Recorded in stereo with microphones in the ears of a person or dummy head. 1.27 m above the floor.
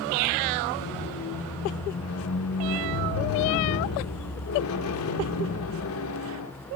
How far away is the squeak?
About 1.1 m.